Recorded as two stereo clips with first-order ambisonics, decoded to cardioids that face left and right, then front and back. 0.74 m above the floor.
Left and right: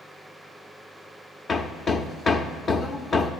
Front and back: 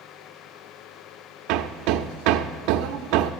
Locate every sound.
1.5 s hammering: 160° left, 0.5 m